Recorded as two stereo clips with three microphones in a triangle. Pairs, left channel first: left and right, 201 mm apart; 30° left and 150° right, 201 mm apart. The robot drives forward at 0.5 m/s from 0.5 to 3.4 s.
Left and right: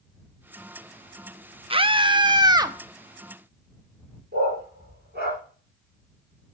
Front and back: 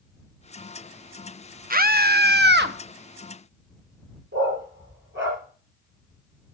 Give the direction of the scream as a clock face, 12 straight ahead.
5 o'clock.